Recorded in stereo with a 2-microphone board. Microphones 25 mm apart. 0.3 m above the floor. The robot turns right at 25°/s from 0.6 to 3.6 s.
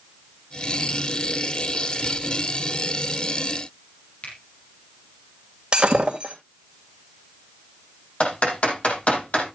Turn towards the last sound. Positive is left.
turn(degrees=45)  # may be behind; listen again after turning